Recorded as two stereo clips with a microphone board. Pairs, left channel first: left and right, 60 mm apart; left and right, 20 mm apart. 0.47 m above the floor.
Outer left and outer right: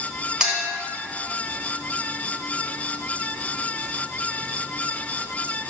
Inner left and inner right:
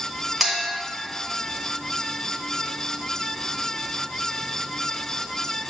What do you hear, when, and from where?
0.4 s a clink: 15° right (ahead or behind), 1.3 m